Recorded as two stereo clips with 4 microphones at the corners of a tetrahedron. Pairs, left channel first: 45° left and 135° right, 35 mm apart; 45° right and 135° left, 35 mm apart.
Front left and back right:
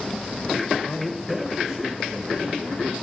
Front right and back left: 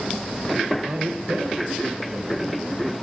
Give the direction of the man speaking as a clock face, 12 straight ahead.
9 o'clock.